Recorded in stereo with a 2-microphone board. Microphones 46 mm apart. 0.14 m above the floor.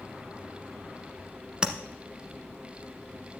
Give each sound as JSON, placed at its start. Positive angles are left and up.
{"t": 1.6, "sound": "tapping", "side_deg": -20, "distance_m": 1.2}